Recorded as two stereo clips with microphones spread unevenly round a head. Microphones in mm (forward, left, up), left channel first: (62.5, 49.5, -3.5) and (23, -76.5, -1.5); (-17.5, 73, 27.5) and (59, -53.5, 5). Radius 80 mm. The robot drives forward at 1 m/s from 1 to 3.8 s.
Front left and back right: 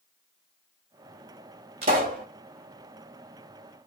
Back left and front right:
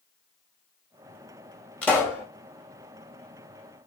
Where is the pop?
150° right, 1.6 m; by 2.2 s 160° right, 2.0 m.